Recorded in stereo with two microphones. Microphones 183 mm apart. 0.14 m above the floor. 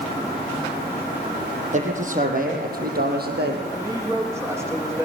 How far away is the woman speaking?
About 6.5 m.